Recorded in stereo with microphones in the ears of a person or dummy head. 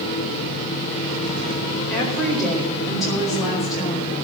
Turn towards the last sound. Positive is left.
turn(degrees=0)  # may be behind; listen again after turning